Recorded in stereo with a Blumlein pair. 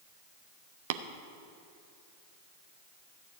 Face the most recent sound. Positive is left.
turn(degrees=-55)